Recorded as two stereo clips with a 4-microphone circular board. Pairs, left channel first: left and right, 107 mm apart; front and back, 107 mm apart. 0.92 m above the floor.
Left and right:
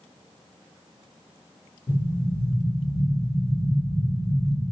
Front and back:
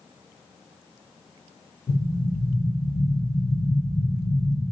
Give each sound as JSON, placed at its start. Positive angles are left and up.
{"t": 1.9, "sound": "an explosion", "azimuth_deg": 40, "distance_m": 1.5}